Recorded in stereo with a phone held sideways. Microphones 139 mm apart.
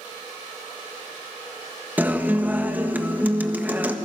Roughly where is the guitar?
Centre.